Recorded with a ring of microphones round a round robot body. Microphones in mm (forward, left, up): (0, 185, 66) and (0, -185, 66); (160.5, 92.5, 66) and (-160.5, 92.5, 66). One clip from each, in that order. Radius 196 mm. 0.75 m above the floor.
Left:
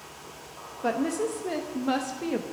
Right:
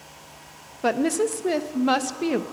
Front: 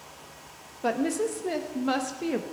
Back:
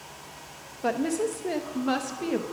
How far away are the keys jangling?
No keys jangling in this recording.